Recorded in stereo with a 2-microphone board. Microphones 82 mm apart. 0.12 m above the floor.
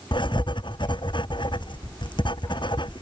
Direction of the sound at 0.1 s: 75° left (ahead or behind).